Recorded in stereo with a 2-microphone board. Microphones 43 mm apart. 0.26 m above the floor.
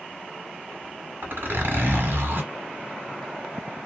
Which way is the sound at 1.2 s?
55° right (ahead or behind).